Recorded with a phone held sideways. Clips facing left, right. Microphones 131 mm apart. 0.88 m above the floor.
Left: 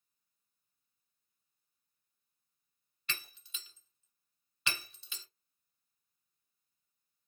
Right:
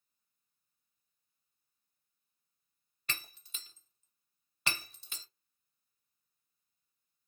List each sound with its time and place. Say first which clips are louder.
3.1 s breaking glass: right 1 dB; 45° right (ahead or behind), 1.1 m